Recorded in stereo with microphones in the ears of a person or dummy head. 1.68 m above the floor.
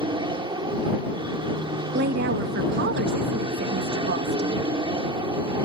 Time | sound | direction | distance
0.0 | an aircraft | 25° right (ahead or behind) | ?
1.9 | a woman speaking | 65° right (ahead or behind) | ?